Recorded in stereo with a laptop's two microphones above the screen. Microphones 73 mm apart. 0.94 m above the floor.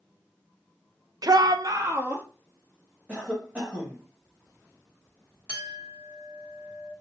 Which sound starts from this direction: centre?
A cough, at 3.1 s.